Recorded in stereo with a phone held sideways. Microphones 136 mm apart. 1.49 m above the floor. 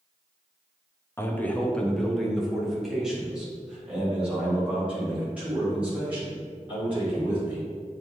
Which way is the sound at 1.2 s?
20° left (ahead or behind).